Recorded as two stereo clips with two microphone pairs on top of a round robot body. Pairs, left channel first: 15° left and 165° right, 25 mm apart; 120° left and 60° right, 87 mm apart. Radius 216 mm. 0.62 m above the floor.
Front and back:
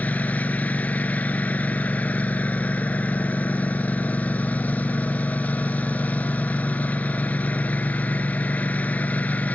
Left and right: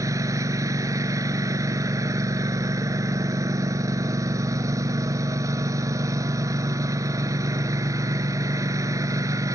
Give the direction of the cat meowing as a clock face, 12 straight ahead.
No cat meowing in this recording.